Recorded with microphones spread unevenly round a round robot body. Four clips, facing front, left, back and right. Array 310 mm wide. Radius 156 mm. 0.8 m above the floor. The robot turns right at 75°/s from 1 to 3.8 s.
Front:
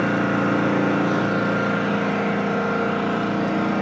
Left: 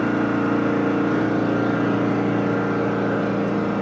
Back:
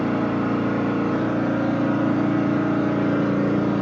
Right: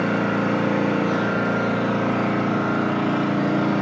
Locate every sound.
0.0 s an engine running: 10° left, 6.5 m; by 3.8 s 140° right, 6.5 m